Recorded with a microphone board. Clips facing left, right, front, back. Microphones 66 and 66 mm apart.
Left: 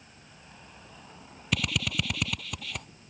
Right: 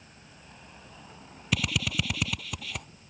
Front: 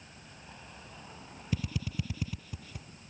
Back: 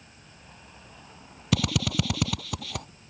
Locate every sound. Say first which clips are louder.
1.5 s a drill: even, back 10 dB; straight behind